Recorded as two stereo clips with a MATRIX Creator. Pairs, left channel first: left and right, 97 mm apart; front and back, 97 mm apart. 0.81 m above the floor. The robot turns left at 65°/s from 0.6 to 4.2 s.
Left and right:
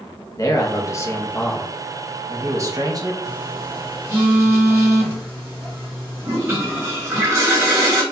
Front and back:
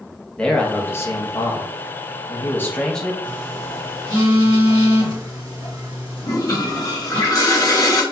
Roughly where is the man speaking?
Left.